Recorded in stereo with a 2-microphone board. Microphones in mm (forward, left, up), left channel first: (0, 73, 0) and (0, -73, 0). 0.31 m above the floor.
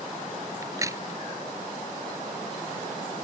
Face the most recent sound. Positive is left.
turn(degrees=-20)  # may be behind; listen again after turning